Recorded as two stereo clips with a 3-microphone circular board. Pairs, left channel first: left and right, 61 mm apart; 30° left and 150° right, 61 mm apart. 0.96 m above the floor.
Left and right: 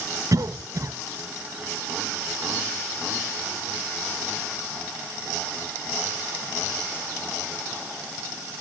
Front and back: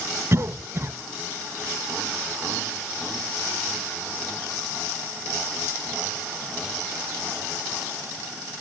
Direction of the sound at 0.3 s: 110° right.